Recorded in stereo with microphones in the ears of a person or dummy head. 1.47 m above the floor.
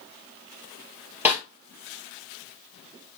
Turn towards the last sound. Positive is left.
turn(degrees=-10)  # may be behind; listen again after turning